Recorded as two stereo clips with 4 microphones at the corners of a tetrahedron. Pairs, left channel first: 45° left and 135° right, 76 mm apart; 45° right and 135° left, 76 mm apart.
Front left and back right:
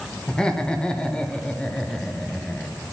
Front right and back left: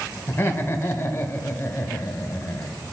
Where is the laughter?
25° right, 0.9 m.